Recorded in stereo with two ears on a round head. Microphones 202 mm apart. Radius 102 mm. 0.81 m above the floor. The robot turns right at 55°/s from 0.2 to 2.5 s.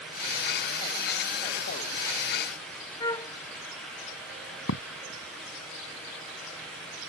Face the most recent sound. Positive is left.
turn(degrees=65)  # may be behind; listen again after turning